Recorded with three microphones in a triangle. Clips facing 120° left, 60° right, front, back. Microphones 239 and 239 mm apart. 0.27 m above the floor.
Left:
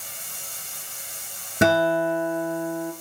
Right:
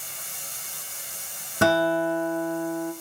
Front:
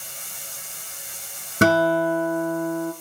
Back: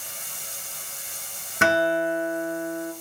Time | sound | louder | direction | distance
1.6 | a guitar | left 2 dB, front 5 dB | 55° left | 0.6 m